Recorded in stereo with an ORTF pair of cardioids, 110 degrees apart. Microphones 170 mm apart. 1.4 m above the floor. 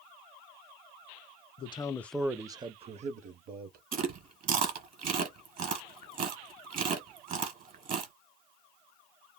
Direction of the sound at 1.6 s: 35° left.